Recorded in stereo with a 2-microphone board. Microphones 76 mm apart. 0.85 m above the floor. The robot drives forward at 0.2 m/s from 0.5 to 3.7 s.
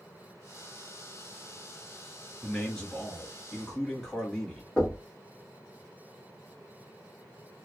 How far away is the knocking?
About 1.6 m.